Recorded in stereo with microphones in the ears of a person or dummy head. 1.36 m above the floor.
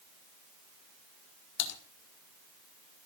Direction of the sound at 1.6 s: 65° left (ahead or behind).